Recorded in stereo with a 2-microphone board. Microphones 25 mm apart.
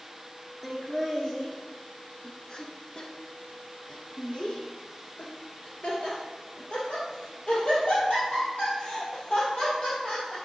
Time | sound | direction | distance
0.6 | laughter | 5° left (ahead or behind) | 1.9 m